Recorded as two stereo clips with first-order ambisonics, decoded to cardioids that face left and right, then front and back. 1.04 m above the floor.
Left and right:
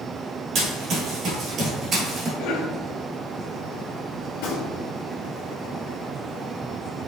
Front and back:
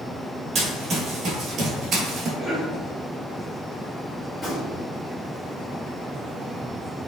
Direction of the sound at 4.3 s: 80° left.